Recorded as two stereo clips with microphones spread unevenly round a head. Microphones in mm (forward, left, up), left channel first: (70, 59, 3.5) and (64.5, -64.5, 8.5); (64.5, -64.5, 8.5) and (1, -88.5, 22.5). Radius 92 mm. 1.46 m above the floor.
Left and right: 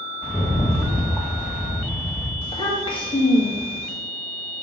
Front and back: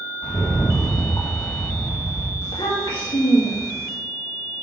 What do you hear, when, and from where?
0.2 s a rattle: 5° left, 2 m
2.4 s a child speaking: 40° left, 2 m